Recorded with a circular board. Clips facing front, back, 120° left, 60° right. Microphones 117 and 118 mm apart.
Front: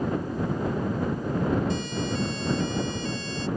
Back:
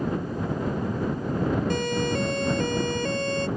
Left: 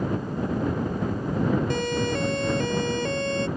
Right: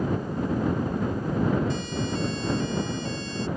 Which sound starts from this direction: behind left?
A siren, at 1.7 s.